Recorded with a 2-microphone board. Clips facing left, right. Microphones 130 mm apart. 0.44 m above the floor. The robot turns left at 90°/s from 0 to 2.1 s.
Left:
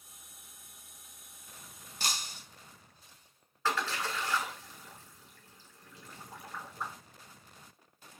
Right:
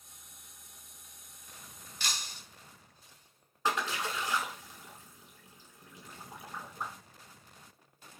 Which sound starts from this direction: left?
Breaking glass, at 2.0 s.